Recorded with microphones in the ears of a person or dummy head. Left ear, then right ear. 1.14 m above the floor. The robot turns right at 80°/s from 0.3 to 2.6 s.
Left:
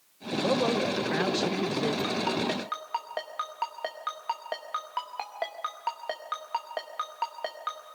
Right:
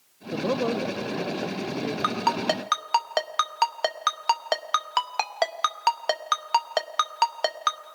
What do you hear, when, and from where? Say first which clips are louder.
0.3 s a man speaking: even; 15° right, 0.6 m; by 1.9 s 115° left, 0.6 m
2.0 s a ringtone: right 5 dB; 35° right (ahead or behind), 0.8 m; by 7.8 s 75° right (ahead or behind), 0.8 m